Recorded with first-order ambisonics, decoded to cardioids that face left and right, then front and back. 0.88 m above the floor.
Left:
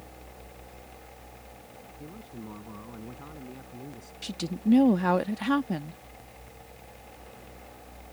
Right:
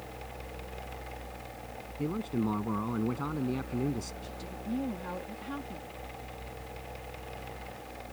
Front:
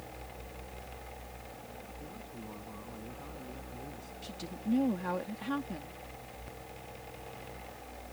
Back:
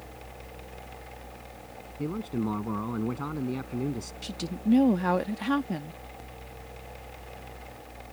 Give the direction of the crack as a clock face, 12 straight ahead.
I don't hear a crack.